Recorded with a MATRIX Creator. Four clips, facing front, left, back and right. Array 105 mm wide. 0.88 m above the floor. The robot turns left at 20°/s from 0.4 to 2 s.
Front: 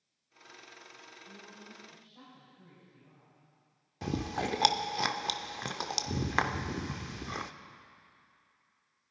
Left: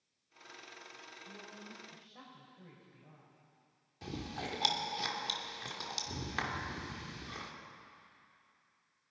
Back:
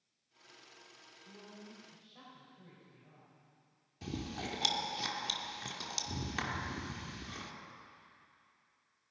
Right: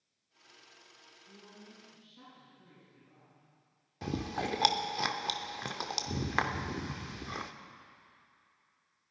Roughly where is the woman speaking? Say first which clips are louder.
Left 1 dB, back 1 dB; behind left.